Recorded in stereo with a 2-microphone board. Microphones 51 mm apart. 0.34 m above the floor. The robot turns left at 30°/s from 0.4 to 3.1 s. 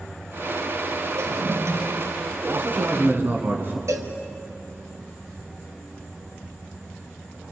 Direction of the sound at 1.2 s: 85° right.